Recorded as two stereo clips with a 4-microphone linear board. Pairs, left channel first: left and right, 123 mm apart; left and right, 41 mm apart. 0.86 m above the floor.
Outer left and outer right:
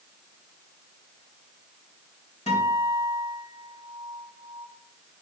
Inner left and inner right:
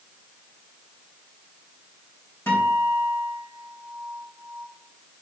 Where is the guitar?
65° left (ahead or behind), 4 m.